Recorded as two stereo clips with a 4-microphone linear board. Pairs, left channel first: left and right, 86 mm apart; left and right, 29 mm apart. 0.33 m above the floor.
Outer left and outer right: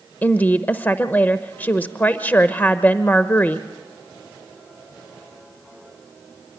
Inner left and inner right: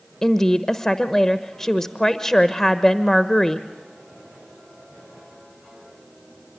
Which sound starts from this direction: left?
A woman speaking, at 0.2 s.